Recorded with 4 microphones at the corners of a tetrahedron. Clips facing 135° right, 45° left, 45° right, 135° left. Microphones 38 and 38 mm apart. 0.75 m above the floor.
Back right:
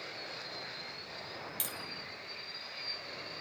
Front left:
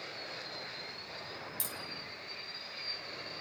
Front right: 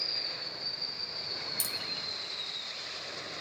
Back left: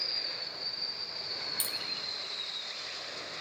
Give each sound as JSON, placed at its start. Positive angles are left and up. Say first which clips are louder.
{"t": 1.6, "sound": "tapping", "louder": "back right 1 dB, even", "azimuth_deg": -170, "distance_m": 2.0}